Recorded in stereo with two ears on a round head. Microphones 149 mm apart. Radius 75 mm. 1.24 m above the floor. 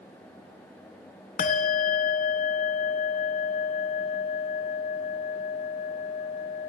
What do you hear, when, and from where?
1.4 s a bell: 50° left (ahead or behind), 0.8 m